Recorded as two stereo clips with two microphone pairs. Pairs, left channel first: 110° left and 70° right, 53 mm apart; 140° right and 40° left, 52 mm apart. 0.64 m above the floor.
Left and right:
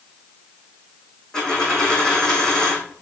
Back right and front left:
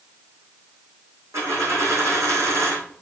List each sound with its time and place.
1.3 s a dropped coin: 35° left, 3 m